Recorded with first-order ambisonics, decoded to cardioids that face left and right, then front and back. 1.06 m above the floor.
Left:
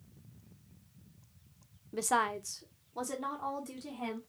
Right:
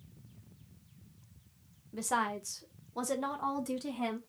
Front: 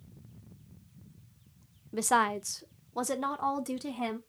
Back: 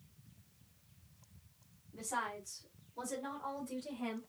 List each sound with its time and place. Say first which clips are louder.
1.9 s a woman speaking: left 2 dB, front 13 dB; 20° left, 0.7 m; by 4.2 s 25° right, 1.6 m